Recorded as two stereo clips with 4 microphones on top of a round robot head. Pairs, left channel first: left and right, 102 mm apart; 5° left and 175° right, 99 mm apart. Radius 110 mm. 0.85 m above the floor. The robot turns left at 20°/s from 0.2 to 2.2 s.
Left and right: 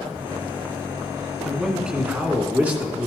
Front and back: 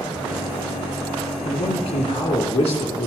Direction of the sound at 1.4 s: 5° right.